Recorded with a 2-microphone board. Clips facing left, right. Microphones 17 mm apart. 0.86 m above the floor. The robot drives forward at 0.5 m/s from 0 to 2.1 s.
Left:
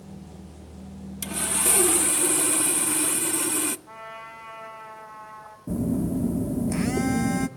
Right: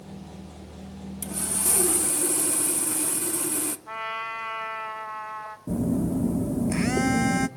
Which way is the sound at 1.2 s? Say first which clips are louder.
Left 4 dB; 45° left (ahead or behind).